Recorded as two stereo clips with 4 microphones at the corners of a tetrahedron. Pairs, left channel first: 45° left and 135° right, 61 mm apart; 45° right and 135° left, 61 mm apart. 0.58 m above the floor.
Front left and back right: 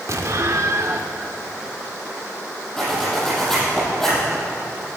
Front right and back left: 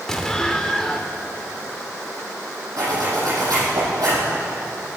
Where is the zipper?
130° left, 6 m.